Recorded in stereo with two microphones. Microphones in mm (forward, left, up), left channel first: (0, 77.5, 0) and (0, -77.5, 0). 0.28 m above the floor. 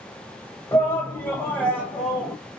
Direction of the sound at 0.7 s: 15° left (ahead or behind).